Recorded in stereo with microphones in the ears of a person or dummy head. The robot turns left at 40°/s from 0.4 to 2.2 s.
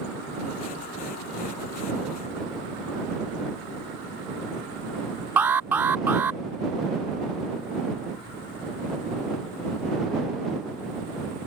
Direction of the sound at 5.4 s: 15° right (ahead or behind).